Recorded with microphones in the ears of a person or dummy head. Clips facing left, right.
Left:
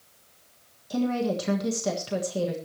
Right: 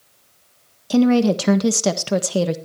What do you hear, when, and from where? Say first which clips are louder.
0.9 s a woman speaking: right 11 dB; 80° right, 1.5 m